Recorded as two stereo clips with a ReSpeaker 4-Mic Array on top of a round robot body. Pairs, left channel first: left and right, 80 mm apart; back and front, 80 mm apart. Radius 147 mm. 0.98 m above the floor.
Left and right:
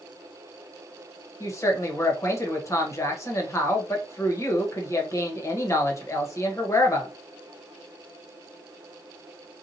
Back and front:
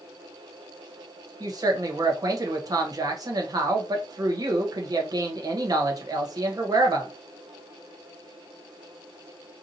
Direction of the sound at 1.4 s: 40° left.